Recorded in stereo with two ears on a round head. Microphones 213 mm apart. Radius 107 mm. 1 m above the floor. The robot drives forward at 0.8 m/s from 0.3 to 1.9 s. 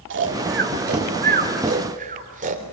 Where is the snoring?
50° right (ahead or behind), 2.5 m; by 2.6 s 35° right (ahead or behind), 3.5 m.